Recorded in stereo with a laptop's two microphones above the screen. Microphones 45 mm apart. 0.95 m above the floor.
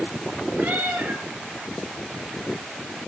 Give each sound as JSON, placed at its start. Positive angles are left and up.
{"t": 0.6, "sound": "a cat meowing", "side_deg": -50, "distance_m": 2.5}